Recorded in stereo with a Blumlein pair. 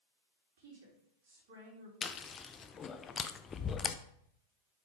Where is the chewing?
20° left, 0.6 m.